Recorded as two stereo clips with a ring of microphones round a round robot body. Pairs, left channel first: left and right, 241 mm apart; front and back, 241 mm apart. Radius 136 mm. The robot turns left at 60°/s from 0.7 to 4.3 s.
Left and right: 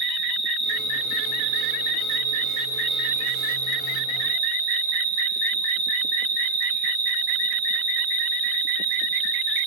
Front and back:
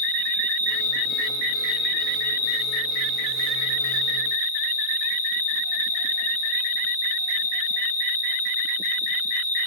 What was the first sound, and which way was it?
An insect, 135° left.